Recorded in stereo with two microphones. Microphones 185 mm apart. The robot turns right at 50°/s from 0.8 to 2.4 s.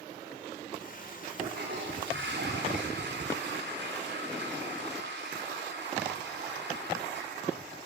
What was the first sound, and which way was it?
A toilet flushing, 125° right.